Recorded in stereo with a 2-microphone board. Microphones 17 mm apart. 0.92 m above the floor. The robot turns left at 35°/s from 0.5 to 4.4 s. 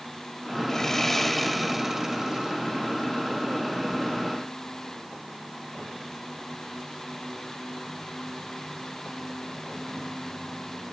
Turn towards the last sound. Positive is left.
turn(degrees=-105)